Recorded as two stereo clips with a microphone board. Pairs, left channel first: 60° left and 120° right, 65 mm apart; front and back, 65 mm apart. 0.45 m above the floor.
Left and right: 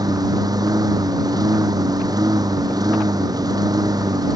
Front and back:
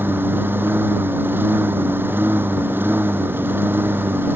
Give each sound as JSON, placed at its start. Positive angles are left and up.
{"t": 0.0, "sound": "a lawn mower", "azimuth_deg": -125}